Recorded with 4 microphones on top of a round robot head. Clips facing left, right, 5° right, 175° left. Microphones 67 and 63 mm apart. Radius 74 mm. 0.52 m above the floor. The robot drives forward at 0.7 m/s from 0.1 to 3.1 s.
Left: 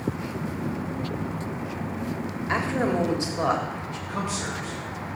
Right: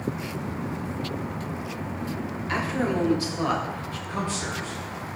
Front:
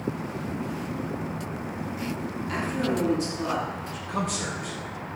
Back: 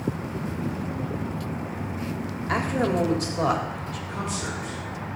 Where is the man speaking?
15° left, 3.5 m.